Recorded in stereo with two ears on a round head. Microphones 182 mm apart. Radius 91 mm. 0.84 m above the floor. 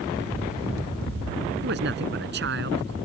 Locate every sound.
1.6 s a man speaking: 55° right (ahead or behind)